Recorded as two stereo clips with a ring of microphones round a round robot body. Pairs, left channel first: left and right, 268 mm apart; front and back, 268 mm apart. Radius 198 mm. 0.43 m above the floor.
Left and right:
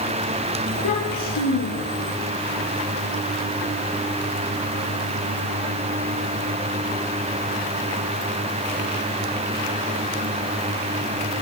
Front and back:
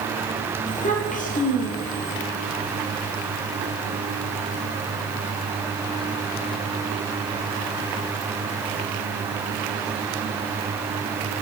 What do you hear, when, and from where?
0.7 s a child speaking: 60° left, 7 m; by 2.1 s 65° left, 9 m